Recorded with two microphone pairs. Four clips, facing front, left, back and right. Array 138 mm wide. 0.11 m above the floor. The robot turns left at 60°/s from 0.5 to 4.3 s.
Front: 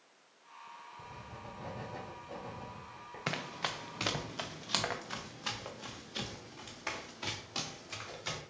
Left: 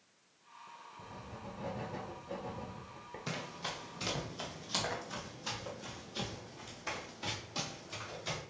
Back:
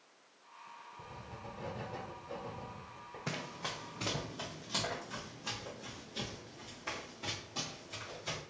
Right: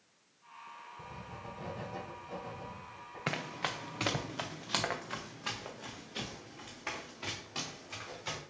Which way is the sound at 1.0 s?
165° right.